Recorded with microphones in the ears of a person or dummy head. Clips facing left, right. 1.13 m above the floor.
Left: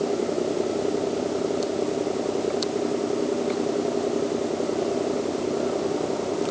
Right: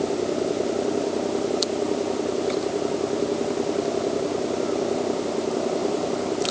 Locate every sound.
Only background noise.